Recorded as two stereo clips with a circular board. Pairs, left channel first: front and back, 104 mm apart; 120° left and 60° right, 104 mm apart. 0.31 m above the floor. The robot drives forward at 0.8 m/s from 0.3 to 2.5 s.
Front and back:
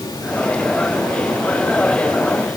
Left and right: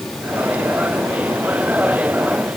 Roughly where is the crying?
No crying in this recording.